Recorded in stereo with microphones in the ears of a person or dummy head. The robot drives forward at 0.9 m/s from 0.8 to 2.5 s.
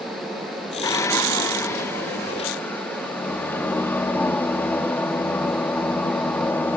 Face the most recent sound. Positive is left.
turn(degrees=5)  # may be behind; listen again after turning